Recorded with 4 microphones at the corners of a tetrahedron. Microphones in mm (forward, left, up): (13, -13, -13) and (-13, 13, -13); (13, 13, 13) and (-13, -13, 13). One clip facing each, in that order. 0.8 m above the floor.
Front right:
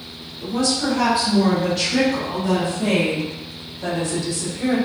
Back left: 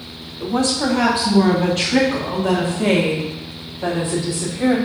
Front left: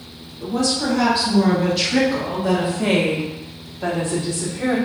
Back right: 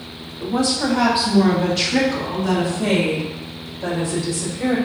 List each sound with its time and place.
0.4 s a woman speaking: 160° left, 2 m; by 4.8 s 65° left, 2.5 m